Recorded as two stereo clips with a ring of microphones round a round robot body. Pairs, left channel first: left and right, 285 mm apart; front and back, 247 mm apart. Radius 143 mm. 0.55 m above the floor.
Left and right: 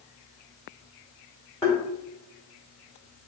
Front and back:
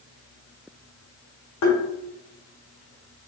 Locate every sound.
1.6 s tapping: 10° left, 1.3 m